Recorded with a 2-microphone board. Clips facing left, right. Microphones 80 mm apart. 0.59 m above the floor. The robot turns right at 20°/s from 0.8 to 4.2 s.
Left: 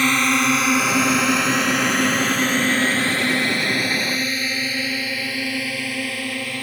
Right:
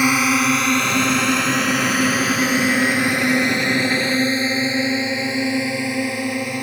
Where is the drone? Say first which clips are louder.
Right 2 dB; 10° right (ahead or behind); by 6.6 s 20° right (ahead or behind).